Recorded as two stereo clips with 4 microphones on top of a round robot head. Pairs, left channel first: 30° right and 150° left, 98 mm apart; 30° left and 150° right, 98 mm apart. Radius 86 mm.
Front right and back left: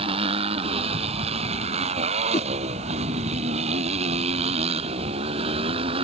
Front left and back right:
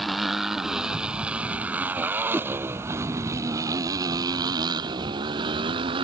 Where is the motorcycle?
125° left; by 6.1 s 175° left.